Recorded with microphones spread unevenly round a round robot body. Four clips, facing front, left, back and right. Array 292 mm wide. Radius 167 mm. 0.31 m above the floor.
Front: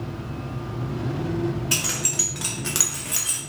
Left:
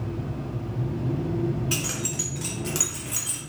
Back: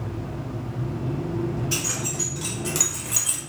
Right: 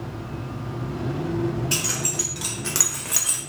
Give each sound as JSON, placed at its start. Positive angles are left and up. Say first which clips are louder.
{"t": 1.7, "sound": "keys jangling", "louder": "right 2 dB, even", "azimuth_deg": 20, "distance_m": 0.9}